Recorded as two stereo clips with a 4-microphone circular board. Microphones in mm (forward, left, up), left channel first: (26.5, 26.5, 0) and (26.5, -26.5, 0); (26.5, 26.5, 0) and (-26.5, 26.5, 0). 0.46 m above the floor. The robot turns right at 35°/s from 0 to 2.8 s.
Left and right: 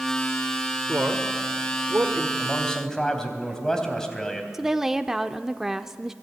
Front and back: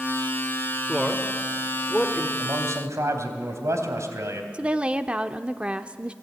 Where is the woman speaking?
160° right, 0.8 m.